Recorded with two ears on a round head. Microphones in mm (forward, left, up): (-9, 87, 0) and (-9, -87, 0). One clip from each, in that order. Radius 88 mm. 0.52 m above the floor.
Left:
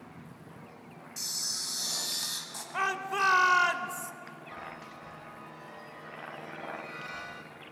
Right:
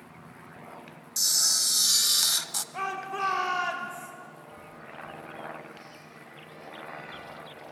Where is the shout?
35° left (ahead or behind), 1.6 m.